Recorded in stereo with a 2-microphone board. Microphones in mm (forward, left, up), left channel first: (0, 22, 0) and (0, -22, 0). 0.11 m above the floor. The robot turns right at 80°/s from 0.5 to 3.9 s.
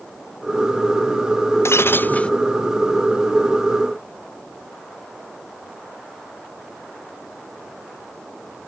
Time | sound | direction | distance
1.6 | breaking glass | 105° left | ?